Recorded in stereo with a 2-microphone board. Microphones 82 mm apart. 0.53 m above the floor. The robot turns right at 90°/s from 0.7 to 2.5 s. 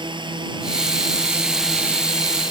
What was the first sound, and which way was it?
A drone, 85° right.